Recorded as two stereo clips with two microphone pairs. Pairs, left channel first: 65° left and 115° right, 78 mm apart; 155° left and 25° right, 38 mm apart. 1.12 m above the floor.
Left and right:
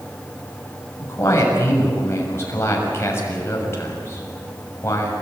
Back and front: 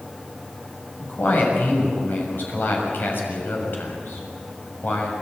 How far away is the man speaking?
About 6.5 m.